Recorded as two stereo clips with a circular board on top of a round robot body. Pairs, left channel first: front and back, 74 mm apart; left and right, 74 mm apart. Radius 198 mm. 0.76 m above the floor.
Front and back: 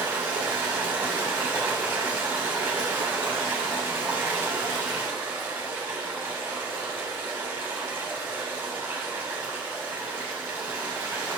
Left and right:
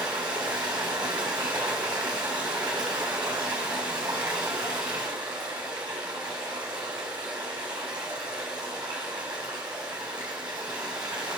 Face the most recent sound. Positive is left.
turn(degrees=-115)